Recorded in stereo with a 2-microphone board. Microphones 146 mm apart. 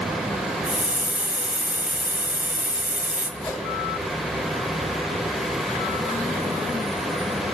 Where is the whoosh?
25° left (ahead or behind), 2.5 m.